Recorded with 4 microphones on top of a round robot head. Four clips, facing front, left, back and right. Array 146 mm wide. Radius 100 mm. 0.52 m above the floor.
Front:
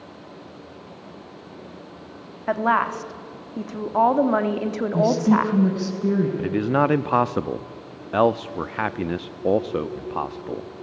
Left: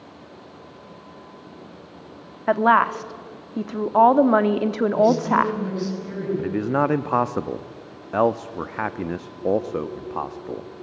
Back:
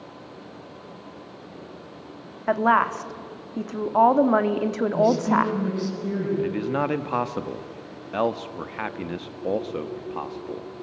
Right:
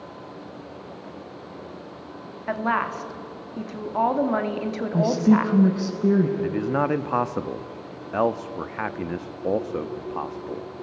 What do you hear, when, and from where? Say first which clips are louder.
2.5 s a woman speaking: left 8 dB, back 1 dB; 100° left, 1.5 m
4.9 s a woman speaking: even, front 2 dB; 55° right, 5.5 m
6.4 s a man speaking: left 2 dB, front 4 dB; 25° left, 0.7 m